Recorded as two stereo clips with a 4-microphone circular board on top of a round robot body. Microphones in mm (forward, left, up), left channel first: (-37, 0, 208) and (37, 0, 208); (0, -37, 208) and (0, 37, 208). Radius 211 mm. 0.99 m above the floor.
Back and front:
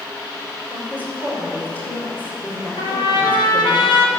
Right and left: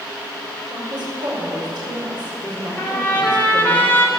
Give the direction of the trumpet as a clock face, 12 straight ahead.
5 o'clock.